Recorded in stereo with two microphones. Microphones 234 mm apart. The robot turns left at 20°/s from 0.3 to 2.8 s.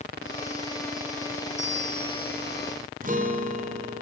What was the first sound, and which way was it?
A bell, 25° left (ahead or behind).